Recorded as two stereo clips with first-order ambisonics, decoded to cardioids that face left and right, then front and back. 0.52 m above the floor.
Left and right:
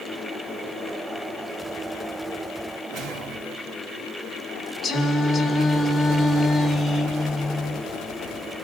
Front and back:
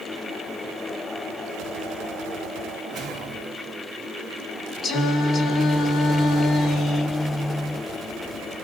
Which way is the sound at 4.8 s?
25° left.